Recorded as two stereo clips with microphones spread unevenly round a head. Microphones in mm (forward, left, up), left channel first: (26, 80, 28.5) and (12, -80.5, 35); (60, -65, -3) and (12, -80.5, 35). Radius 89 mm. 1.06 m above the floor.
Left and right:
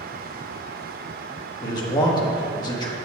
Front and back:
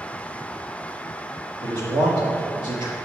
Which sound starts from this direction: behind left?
A man speaking, at 1.6 s.